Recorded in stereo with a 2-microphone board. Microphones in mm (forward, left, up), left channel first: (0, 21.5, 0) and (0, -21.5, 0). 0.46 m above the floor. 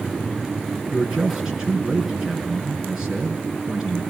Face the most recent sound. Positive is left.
turn(degrees=-15)  # may be behind; listen again after turning